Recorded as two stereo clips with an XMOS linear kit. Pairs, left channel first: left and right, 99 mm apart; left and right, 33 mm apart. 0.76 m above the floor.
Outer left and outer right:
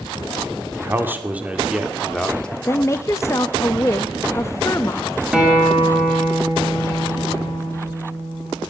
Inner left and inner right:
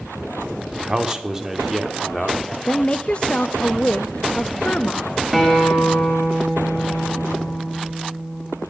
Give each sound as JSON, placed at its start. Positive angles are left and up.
{"t": 0.8, "sound": "a man speaking", "side_deg": -25, "distance_m": 1.9}
{"t": 2.7, "sound": "a woman speaking", "side_deg": 30, "distance_m": 0.6}
{"t": 5.3, "sound": "a guitar", "side_deg": -10, "distance_m": 4.5}